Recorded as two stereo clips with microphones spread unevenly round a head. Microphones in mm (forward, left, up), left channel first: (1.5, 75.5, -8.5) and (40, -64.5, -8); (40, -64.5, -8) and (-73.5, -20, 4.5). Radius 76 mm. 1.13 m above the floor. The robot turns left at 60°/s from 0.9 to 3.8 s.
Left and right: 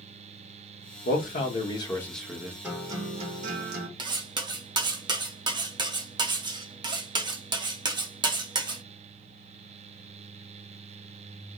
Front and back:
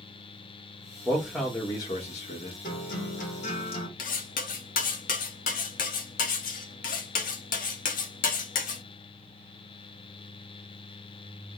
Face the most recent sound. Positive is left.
turn(degrees=-15)